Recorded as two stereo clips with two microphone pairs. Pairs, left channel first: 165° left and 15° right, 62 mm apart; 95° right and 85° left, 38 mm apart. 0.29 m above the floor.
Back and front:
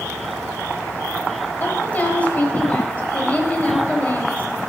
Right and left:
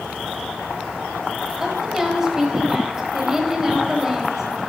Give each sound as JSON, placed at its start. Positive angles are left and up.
{"t": 1.6, "sound": "a woman speaking", "azimuth_deg": 145, "distance_m": 1.1}